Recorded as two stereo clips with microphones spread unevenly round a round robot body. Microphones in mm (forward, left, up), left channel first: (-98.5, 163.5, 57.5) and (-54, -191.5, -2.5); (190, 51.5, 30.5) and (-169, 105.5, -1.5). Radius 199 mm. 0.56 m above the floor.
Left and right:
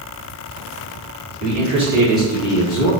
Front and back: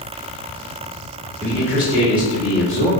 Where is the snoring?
I don't hear snoring.